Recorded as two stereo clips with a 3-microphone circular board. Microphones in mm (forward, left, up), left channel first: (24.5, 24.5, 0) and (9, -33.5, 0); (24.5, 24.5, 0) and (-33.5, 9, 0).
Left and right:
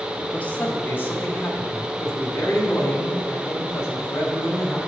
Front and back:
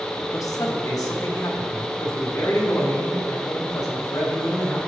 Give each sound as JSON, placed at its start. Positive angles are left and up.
{"t": 0.3, "sound": "a man speaking", "azimuth_deg": 10, "distance_m": 1.1}